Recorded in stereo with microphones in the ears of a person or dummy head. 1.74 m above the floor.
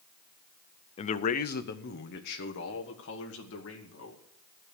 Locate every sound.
1.0 s a man speaking: 35° left (ahead or behind), 0.5 m; by 4.2 s 75° left (ahead or behind), 2.5 m